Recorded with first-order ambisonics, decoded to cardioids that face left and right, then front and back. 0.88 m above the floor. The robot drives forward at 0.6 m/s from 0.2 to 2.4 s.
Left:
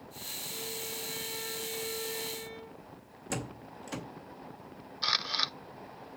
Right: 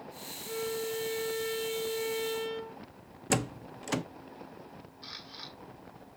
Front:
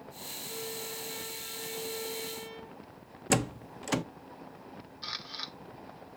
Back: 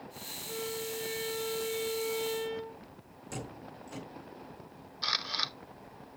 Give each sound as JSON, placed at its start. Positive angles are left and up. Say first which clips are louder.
{"t": 0.5, "sound": "a violin", "louder": "right 8 dB, back 4 dB", "azimuth_deg": -105, "distance_m": 3.0}
{"t": 3.3, "sound": "a door slam", "louder": "right 7 dB, front 13 dB", "azimuth_deg": -30, "distance_m": 0.7}
{"t": 5.0, "sound": "a camera shutter", "louder": "left 16 dB, back 7 dB", "azimuth_deg": 120, "distance_m": 0.6}